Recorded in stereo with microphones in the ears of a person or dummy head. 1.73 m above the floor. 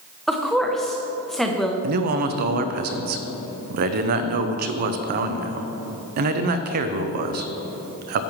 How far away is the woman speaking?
About 0.8 m.